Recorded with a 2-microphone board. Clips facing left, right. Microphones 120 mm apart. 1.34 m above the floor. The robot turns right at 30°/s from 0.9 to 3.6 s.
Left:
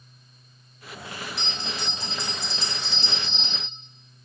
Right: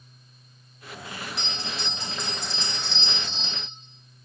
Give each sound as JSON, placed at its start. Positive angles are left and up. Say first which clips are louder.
{"t": 1.4, "sound": "a bell", "louder": "left 1 dB", "azimuth_deg": -75, "distance_m": 2.5}